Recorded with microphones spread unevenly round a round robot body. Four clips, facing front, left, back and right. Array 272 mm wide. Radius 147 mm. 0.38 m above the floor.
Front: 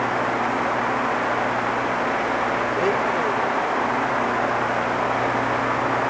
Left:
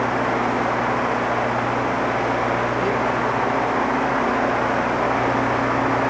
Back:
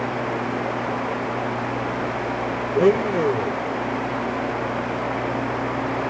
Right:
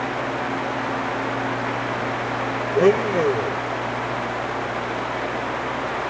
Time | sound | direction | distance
2.8 | a blender | 140° right | ?